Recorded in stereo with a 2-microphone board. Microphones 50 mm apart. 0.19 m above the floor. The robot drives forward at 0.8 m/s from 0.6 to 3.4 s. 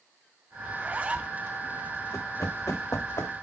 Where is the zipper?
30° right (ahead or behind), 0.8 m; by 1.4 s 25° right (ahead or behind), 1.0 m.